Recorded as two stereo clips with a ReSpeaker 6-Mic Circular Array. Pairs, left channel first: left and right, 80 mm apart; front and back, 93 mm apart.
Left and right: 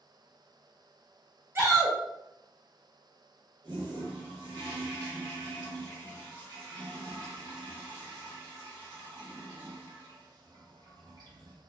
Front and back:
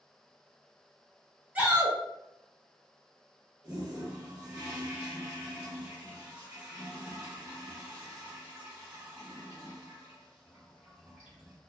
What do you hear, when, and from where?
1.6 s a shout: 120° right, 0.6 m
3.6 s a toilet flushing: 105° right, 1.2 m